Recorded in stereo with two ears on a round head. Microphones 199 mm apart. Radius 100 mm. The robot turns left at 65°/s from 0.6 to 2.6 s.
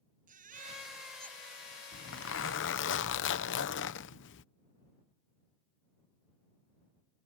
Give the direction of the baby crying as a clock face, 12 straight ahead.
5 o'clock.